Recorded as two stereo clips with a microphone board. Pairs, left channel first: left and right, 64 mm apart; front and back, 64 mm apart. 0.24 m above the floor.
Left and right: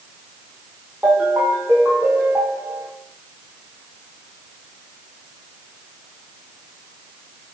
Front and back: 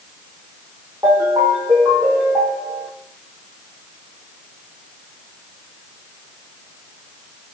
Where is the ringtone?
150° right, 5.5 m.